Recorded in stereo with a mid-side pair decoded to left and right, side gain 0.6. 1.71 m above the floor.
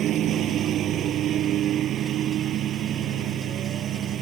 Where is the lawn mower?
55° right.